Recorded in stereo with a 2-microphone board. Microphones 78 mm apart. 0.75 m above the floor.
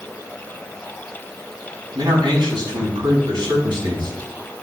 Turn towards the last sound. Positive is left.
turn(degrees=-80)